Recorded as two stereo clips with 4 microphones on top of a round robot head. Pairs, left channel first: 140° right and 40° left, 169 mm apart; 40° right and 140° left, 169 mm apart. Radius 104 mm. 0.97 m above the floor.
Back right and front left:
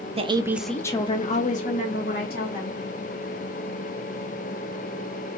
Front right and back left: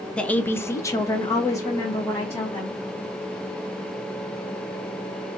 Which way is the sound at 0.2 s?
40° left.